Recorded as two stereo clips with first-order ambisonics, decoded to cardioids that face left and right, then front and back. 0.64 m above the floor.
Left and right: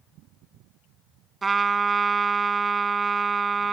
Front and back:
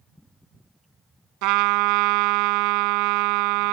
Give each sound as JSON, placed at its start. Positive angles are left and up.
{"t": 1.4, "sound": "a trumpet", "azimuth_deg": -165}